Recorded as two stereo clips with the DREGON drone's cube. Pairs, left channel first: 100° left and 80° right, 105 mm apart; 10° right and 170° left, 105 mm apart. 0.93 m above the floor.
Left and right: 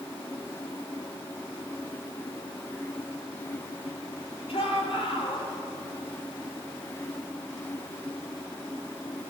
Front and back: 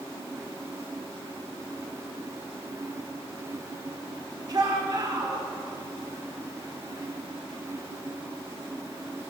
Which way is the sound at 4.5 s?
125° left.